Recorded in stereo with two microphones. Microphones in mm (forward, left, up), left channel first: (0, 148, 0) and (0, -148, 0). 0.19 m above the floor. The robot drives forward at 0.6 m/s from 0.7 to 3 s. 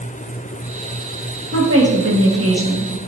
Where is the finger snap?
No finger snap in this recording.